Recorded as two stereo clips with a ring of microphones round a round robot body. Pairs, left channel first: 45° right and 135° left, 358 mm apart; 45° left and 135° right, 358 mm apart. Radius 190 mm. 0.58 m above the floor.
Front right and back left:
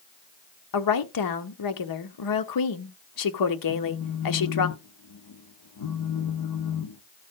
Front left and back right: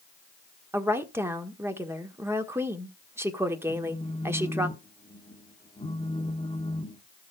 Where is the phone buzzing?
30° right, 1.3 m.